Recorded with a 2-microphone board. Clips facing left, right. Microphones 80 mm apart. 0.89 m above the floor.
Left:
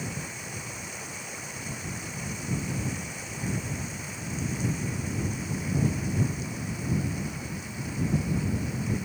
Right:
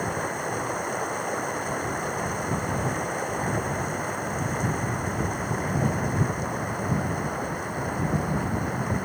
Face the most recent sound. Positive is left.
turn(degrees=-50)  # may be behind; listen again after turning